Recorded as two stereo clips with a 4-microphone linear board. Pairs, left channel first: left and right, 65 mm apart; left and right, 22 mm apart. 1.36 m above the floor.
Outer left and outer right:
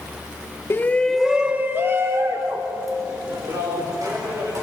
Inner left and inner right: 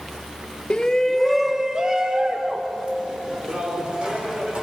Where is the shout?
35° left (ahead or behind), 1.2 m; by 4.6 s 60° right (ahead or behind), 6 m.